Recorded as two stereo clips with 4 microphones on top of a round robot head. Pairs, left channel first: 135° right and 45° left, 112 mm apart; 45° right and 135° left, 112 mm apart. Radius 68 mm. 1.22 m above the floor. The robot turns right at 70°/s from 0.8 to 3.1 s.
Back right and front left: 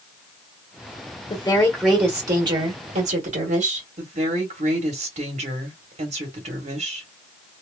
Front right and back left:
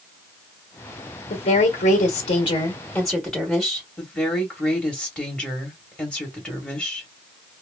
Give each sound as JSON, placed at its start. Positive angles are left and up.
{"t": 1.3, "sound": "a woman speaking", "azimuth_deg": -80, "distance_m": 1.2}
{"t": 4.0, "sound": "a woman speaking", "azimuth_deg": 40, "distance_m": 1.3}